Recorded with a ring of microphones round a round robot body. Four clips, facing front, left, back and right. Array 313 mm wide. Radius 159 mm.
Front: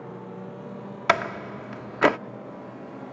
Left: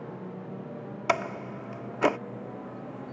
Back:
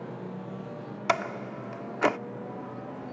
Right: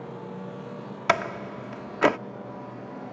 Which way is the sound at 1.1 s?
25° right.